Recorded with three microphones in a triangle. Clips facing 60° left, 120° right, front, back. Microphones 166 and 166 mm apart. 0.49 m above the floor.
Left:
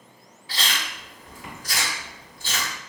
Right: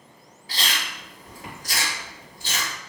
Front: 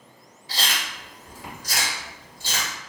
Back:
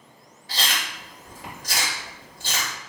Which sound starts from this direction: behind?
Chewing, at 0.5 s.